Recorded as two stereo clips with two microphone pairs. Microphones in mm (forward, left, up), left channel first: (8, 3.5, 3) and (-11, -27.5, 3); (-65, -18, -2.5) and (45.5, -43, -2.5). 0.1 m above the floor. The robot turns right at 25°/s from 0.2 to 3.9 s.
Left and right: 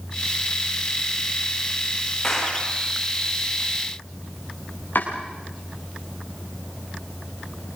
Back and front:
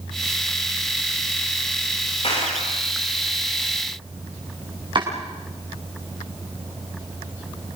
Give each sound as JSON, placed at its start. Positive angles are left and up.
{"t": 2.2, "sound": "a clap", "azimuth_deg": 135, "distance_m": 9.0}
{"t": 5.0, "sound": "chopping", "azimuth_deg": 35, "distance_m": 7.0}